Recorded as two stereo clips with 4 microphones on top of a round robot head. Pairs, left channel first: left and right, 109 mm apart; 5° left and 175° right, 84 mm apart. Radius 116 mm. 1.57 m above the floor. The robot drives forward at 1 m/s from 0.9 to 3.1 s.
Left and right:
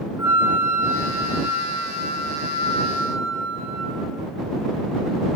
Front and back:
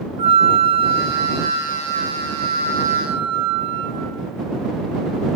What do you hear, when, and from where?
0.2 s a flute: 165° right, 0.7 m; by 4.0 s 175° right, 3 m